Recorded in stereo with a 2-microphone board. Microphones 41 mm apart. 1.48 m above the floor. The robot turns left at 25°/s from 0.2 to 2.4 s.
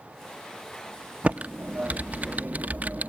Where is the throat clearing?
I don't hear throat clearing.